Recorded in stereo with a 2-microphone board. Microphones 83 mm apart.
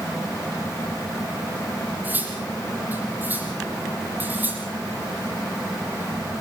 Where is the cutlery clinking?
20° right (ahead or behind), 6.5 m.